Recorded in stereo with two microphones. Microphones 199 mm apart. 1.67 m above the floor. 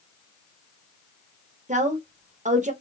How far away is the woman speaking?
About 0.8 m.